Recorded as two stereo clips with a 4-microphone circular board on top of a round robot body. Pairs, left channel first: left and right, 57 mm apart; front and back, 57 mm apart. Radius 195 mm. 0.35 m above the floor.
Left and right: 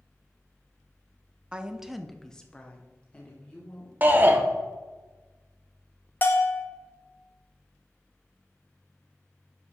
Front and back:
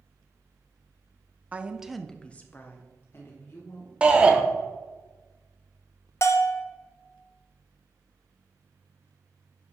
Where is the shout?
120° right, 0.9 m.